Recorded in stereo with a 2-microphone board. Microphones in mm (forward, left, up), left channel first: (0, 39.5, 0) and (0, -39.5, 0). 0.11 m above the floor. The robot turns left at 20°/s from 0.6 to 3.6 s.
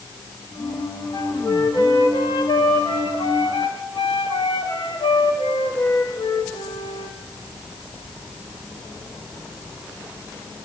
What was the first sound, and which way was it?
A flute, 135° left.